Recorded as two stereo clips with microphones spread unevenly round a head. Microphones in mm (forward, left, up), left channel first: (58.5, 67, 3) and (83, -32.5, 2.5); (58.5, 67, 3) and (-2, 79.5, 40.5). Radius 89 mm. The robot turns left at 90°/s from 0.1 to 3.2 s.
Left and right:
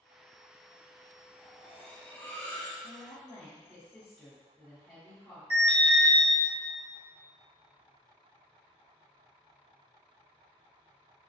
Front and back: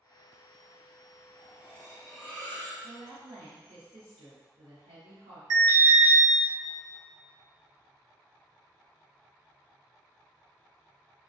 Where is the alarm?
140° left, 1.1 m.